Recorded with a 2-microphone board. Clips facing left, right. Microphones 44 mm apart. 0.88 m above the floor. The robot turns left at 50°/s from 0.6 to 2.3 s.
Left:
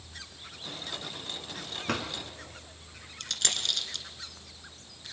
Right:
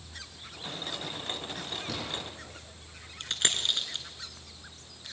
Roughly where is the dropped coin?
Right.